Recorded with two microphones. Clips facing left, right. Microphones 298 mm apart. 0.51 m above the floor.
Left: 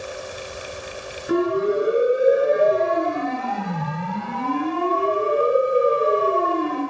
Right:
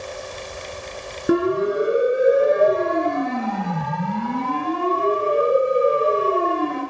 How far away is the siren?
About 6.5 m.